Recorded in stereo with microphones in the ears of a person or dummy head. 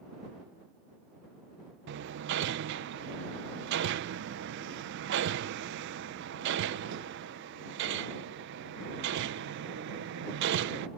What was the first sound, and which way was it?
Hammering, 65° right (ahead or behind).